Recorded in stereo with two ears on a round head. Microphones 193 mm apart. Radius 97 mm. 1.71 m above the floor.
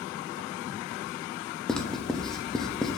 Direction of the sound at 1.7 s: Centre (ahead or behind).